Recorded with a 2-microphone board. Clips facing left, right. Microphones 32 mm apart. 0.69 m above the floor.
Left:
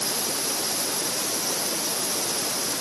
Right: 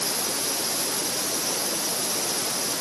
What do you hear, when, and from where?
Only background noise.